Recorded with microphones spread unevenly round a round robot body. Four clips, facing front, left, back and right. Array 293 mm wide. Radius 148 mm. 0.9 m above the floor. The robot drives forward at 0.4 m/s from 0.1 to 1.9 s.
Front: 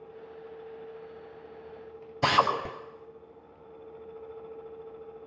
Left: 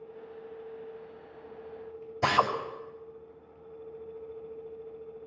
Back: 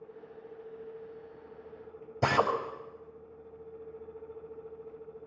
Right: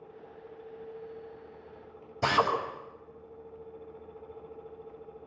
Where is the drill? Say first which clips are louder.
Left 1 dB, front 3 dB; straight behind, 3 m.